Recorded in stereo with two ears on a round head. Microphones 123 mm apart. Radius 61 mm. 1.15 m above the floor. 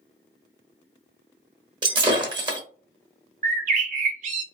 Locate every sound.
1.8 s breaking glass: 30° right (ahead or behind), 1.0 m
3.4 s a bird: 60° right (ahead or behind), 0.7 m